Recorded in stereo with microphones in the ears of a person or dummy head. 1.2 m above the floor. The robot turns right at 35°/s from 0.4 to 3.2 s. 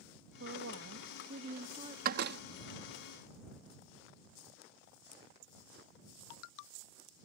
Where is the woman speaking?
95° right; by 1.9 s 40° right.